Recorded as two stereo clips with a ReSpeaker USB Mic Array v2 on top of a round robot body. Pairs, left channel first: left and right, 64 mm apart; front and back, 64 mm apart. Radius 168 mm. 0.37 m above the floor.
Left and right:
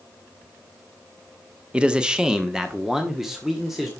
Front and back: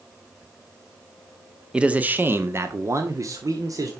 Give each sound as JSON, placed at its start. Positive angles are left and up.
{"t": 1.7, "sound": "a man speaking", "azimuth_deg": -130, "distance_m": 1.1}